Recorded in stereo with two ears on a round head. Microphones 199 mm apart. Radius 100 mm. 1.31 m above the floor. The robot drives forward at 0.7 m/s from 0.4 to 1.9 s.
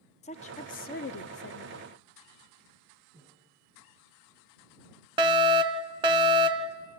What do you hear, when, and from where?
0.2 s a woman speaking: 30° left (ahead or behind), 0.9 m; by 2.0 s 40° left (ahead or behind), 0.7 m
3.1 s breathing: 10° right (ahead or behind), 6 m
5.2 s a fire alarm: 20° right (ahead or behind), 1.0 m